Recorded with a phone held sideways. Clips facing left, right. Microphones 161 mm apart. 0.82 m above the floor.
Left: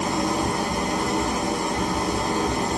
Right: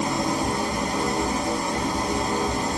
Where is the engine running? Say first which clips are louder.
Left 1 dB; 75° left (ahead or behind), 1.9 m.